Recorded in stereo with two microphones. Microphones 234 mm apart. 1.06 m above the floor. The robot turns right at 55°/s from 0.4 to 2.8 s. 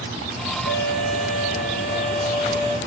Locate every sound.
0.7 s a violin: 55° left, 4.5 m; by 2.8 s 175° left, 4.5 m